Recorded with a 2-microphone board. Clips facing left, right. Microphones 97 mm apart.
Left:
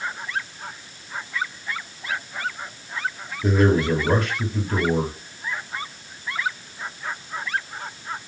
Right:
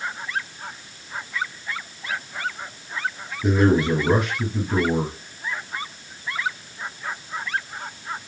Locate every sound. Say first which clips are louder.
3.4 s a man speaking: right 1 dB; 10° right (ahead or behind), 4 m